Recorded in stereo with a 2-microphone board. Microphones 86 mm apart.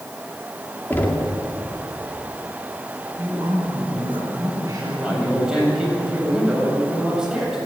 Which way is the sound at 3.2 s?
45° right (ahead or behind).